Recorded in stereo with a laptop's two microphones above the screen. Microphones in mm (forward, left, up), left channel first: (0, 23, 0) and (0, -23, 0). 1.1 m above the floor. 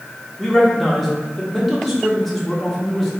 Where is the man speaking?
5° left (ahead or behind), 1.3 m.